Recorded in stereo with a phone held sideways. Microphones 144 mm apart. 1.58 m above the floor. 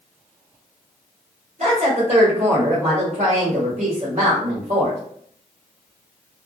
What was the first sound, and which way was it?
A woman speaking, 70° right (ahead or behind).